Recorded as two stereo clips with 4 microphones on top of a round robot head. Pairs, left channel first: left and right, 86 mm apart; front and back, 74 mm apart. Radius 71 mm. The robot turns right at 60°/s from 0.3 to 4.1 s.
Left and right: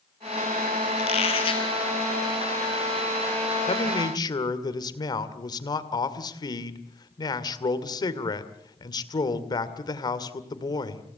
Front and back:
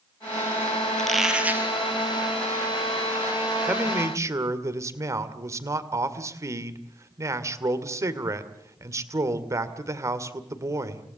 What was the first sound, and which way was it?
A squeak, 80° left.